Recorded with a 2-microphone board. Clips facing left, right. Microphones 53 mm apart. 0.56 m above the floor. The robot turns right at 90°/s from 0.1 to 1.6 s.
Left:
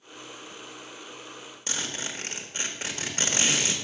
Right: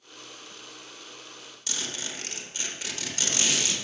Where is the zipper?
35° left (ahead or behind), 1.4 m.